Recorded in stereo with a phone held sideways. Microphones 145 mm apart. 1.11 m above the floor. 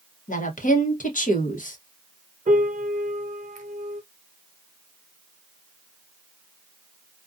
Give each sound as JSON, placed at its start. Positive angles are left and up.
{"t": 0.3, "sound": "a woman speaking", "side_deg": 65, "distance_m": 0.8}
{"t": 2.5, "sound": "a piano", "side_deg": -60, "distance_m": 0.5}